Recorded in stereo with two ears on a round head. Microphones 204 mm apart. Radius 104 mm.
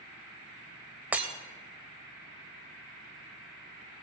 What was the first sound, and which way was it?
Breaking glass, 5° right (ahead or behind).